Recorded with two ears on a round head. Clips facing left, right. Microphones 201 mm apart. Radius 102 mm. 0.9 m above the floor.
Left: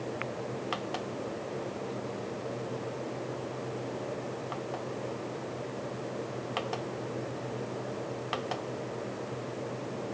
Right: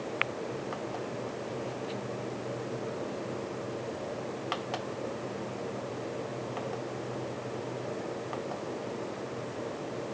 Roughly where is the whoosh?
No whoosh in this recording.